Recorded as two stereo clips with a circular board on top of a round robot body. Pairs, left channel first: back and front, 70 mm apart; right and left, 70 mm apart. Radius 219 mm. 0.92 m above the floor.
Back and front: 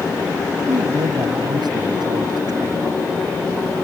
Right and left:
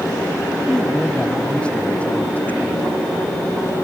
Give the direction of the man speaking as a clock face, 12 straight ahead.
12 o'clock.